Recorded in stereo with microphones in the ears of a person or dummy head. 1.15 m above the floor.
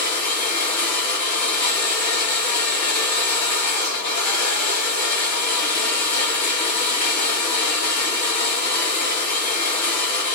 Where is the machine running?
40° left (ahead or behind), 1.2 m.